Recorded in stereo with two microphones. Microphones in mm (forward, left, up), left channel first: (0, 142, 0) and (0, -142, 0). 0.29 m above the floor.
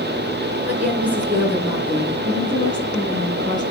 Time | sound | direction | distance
0.7 | a woman speaking | 5° right (ahead or behind) | 4 m
2.2 | a woman speaking | 15° left (ahead or behind) | 4.5 m